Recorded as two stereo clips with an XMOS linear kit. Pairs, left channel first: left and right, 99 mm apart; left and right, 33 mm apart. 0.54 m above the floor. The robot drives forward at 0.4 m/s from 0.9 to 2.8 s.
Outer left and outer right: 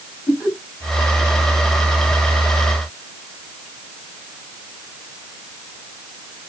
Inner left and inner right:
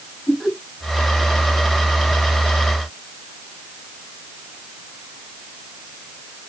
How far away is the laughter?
About 5 m.